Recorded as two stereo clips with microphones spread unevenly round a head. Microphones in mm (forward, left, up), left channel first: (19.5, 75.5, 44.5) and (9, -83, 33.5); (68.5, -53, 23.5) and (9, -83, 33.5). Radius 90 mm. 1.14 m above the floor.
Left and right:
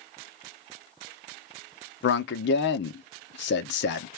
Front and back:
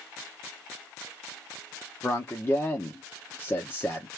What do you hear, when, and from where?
2.0 s a man speaking: 90° left, 0.6 m